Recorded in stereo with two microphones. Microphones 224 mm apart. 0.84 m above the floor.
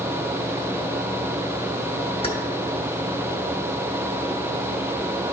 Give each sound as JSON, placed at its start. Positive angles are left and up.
{"t": 2.2, "sound": "keys jangling", "side_deg": 25, "distance_m": 1.1}